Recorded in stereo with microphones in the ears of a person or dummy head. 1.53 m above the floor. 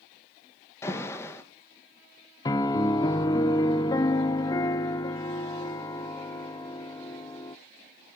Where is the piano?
20° left (ahead or behind), 0.7 m.